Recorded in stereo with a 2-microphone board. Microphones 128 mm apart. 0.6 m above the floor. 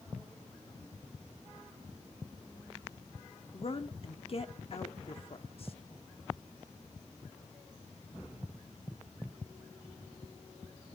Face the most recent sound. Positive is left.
turn(degrees=50)  # may be behind; listen again after turning